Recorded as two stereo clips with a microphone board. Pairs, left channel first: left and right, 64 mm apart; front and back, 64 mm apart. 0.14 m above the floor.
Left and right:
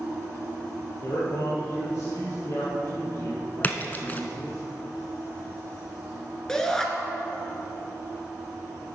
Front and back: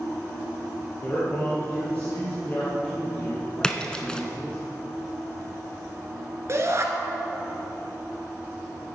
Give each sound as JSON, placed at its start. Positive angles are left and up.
{"t": 1.0, "sound": "a man speaking", "azimuth_deg": 60, "distance_m": 2.5}
{"t": 3.6, "sound": "a splash", "azimuth_deg": 65, "distance_m": 0.8}
{"t": 6.5, "sound": "a shout", "azimuth_deg": 165, "distance_m": 1.8}